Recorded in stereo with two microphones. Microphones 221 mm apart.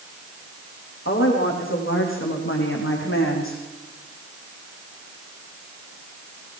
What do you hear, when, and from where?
1.1 s a woman speaking: 65° left (ahead or behind), 8 m; by 3.6 s 75° left (ahead or behind), 6.5 m